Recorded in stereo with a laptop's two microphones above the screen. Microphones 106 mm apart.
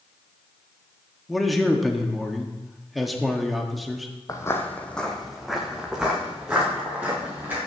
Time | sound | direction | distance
1.3 | a man speaking | centre (ahead or behind) | 1.8 m
4.3 | footsteps | 30° left (ahead or behind) | 1.5 m